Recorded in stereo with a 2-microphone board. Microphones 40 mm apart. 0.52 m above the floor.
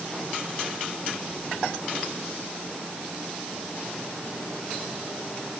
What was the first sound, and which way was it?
Only background noise.